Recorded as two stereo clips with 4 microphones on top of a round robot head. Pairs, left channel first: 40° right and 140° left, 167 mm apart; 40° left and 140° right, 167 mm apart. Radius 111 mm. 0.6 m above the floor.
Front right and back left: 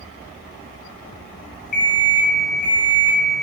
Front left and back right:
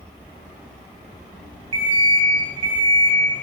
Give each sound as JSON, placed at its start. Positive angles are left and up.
{"t": 1.7, "sound": "an alarm clock", "azimuth_deg": -80, "distance_m": 2.5}